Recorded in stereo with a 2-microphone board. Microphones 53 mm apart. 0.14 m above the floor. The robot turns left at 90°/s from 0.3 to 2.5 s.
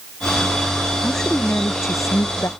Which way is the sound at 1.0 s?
175° right.